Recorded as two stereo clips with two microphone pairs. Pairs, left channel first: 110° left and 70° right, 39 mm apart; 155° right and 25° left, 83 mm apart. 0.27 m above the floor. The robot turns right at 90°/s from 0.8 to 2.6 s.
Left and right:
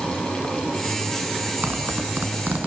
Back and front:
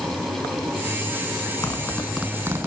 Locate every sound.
1.6 s a zipper: 110° right, 2 m; by 2.7 s 25° right, 2 m